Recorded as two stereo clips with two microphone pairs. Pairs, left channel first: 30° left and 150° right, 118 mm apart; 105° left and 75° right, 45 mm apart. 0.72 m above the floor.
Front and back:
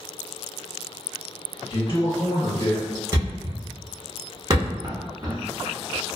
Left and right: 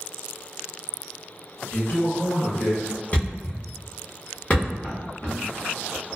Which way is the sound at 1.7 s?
60° left.